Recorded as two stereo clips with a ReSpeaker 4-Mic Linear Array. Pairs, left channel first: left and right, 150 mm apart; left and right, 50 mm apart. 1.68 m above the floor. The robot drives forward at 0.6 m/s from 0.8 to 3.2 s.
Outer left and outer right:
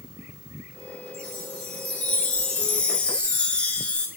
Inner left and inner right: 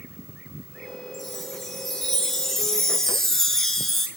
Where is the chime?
5° left (ahead or behind), 6.5 m.